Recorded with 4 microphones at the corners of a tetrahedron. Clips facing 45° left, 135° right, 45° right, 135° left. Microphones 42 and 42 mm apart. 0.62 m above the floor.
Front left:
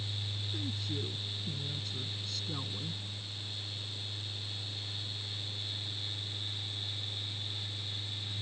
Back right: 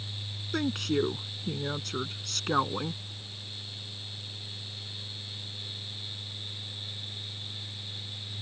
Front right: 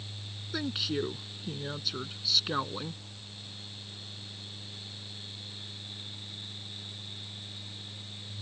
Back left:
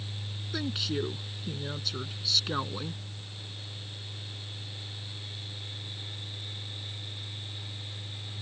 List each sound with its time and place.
0.5 s a woman speaking: 130° right